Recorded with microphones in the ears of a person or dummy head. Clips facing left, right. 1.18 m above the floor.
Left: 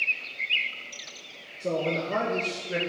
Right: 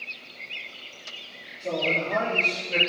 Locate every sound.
1.6 s a man speaking: 45° left (ahead or behind), 0.9 m; by 2.8 s 15° left (ahead or behind), 1.1 m